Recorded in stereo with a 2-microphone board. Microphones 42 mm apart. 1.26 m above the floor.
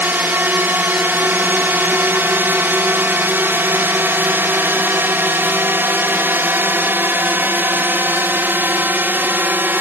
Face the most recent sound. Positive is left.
turn(degrees=-55)  # may be behind; listen again after turning